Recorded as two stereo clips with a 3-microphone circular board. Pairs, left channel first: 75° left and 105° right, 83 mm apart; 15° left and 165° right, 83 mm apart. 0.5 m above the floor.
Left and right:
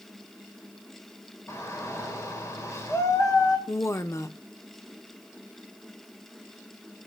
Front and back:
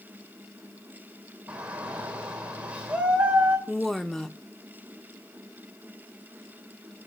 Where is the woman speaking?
95° left, 0.8 m.